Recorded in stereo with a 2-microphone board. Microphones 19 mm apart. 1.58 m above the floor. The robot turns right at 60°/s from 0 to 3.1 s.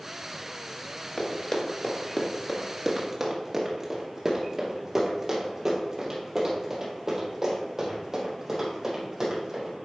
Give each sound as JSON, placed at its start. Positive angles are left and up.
{"t": 1.2, "sound": "running footsteps", "side_deg": 25, "distance_m": 1.7}